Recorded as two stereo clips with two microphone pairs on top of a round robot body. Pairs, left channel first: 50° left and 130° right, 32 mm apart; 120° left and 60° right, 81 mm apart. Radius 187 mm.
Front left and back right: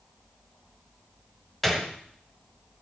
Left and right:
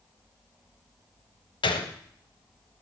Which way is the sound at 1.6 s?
135° left.